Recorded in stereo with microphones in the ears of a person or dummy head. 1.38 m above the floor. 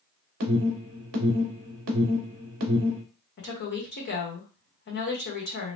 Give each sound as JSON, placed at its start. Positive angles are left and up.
{"t": 0.4, "sound": "an alarm", "side_deg": -50, "distance_m": 0.7}
{"t": 3.4, "sound": "a woman speaking", "side_deg": 55, "distance_m": 1.2}